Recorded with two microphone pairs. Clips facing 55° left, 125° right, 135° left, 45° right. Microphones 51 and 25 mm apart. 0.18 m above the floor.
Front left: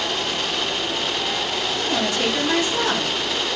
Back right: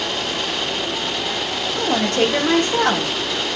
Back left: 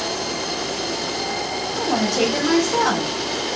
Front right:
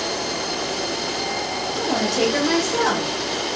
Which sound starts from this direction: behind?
A woman speaking, at 1.8 s.